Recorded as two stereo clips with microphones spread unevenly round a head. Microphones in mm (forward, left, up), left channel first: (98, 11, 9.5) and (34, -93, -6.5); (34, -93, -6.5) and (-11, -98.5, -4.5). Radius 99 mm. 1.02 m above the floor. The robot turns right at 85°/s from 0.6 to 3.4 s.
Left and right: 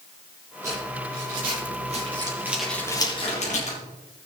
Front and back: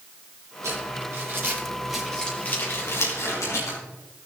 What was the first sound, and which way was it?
Crumpling, 160° left.